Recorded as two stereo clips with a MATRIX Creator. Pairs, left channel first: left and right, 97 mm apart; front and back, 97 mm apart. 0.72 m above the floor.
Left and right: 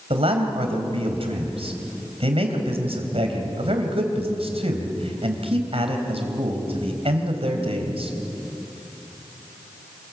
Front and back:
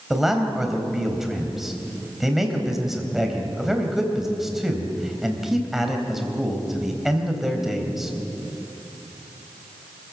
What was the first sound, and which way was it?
A man speaking, 95° right.